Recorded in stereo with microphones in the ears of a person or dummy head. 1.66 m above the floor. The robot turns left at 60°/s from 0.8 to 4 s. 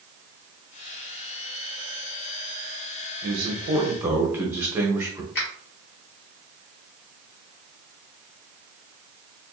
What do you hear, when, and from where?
3.2 s a man speaking: 120° right, 0.7 m; by 5.2 s 170° right, 0.7 m
5.3 s a finger snap: 65° left (ahead or behind), 1.3 m